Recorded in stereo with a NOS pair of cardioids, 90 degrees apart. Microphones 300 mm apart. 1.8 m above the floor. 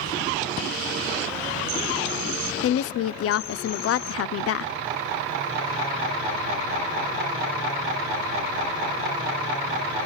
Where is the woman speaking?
55° left, 0.6 m.